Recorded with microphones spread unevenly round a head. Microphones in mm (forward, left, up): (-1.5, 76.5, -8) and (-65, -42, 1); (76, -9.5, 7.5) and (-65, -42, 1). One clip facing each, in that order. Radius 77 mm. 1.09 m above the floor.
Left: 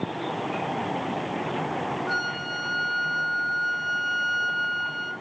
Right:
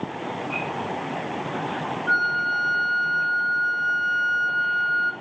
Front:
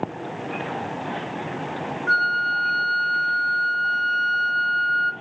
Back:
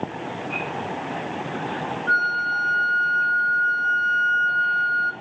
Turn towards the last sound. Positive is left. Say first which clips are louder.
# right 4 dB, even
turn(degrees=-20)